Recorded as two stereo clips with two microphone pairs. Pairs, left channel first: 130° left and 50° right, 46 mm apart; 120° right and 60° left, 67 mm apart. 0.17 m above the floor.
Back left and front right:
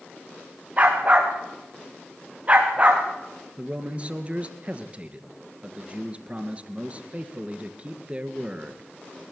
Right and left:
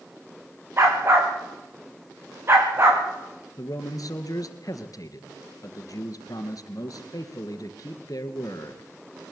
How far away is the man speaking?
About 2.5 m.